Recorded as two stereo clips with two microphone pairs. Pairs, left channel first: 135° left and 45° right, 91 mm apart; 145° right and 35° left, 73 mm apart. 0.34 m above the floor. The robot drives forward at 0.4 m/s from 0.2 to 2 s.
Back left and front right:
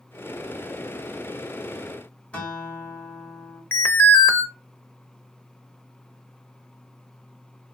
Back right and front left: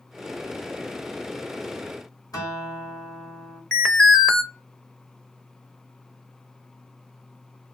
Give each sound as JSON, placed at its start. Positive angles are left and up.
{"t": 2.3, "sound": "a guitar", "azimuth_deg": -150, "distance_m": 1.6}
{"t": 3.7, "sound": "an alarm", "azimuth_deg": 145, "distance_m": 0.6}